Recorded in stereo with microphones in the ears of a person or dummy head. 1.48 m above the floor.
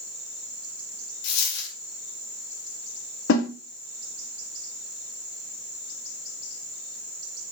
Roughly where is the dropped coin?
Left.